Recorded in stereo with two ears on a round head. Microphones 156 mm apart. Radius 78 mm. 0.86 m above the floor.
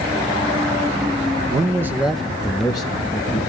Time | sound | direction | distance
1.5 | a man speaking | 25° right (ahead or behind) | 0.8 m